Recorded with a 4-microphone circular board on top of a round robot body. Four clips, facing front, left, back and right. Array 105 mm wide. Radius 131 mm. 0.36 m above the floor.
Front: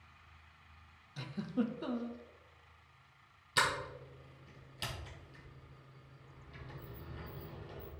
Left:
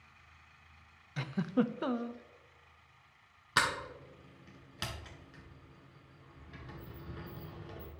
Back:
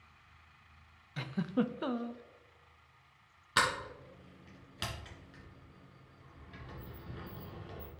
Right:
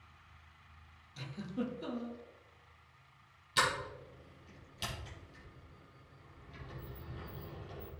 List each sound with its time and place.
1.2 s a giggle: 120° left, 0.5 m
3.6 s a sliding door: 125° left, 2 m